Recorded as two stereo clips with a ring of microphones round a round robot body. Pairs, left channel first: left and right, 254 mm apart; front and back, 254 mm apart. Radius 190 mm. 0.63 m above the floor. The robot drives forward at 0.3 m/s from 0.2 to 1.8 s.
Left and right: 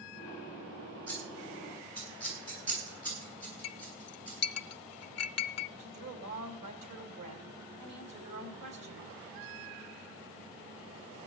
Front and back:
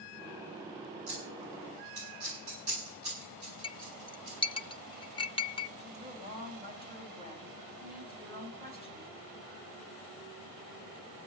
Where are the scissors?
155° right, 8 m; by 4.4 s 160° right, 8.5 m.